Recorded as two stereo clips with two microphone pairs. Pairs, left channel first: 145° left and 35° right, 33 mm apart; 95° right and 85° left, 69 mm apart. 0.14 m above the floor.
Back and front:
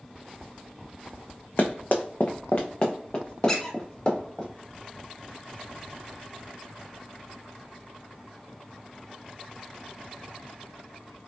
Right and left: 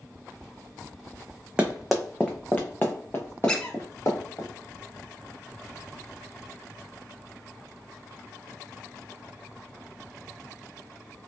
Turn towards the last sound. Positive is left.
turn(degrees=-155)